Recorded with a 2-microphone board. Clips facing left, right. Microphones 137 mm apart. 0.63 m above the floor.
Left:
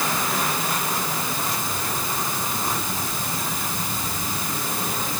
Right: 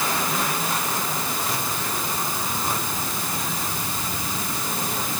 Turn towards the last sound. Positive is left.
No sound to turn to.